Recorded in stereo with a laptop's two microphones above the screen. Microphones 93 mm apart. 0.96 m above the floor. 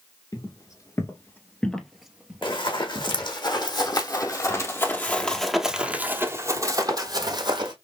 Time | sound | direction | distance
0.3 | footsteps | 45° left (ahead or behind) | 1.3 m
2.4 | running footsteps | 60° left (ahead or behind) | 2.5 m